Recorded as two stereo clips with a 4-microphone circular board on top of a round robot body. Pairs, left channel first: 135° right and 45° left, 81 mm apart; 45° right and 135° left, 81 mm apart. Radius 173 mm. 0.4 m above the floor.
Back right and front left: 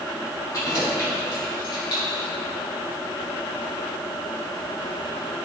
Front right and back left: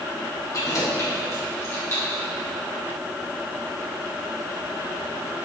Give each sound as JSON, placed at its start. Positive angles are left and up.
{"t": 0.5, "sound": "keys jangling", "azimuth_deg": -90, "distance_m": 2.5}